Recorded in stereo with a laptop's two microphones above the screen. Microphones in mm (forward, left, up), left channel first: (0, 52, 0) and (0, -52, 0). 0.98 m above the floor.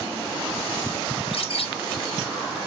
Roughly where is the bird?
Left.